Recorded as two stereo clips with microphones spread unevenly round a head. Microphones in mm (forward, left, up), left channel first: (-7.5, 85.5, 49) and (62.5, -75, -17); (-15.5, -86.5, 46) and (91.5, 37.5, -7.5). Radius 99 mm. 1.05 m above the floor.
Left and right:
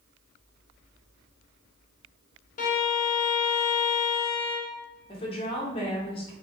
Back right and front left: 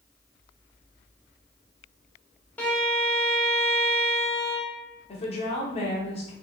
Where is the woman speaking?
Straight behind, 0.7 m.